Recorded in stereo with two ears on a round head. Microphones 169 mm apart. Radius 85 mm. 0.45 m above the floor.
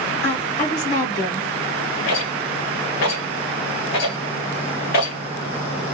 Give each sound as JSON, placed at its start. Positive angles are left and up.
{"t": 0.2, "sound": "a woman speaking", "side_deg": 55, "distance_m": 2.0}
{"t": 2.1, "sound": "a rattle", "side_deg": 55, "distance_m": 1.9}